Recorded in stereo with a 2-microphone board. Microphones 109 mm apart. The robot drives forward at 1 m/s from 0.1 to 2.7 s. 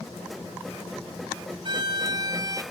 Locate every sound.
1.6 s a violin: 45° right (ahead or behind); by 2.6 s 35° right (ahead or behind)